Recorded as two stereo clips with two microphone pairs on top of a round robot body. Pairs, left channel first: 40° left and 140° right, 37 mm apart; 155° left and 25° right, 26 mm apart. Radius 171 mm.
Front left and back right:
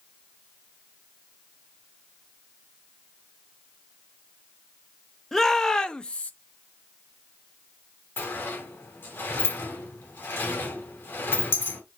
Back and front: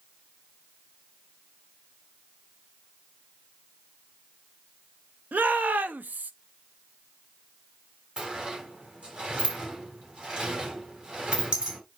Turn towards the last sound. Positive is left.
turn(degrees=25)